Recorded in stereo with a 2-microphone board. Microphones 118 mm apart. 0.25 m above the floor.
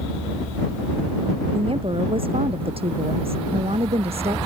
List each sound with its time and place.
1.5 s a woman speaking: 50° right (ahead or behind); by 4.4 s 60° right (ahead or behind)